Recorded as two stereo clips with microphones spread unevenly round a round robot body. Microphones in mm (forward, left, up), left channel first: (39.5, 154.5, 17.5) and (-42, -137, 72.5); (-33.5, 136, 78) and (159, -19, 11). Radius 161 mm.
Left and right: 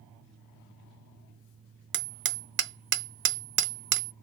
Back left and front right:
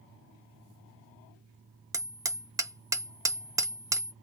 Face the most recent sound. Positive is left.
turn(degrees=-65)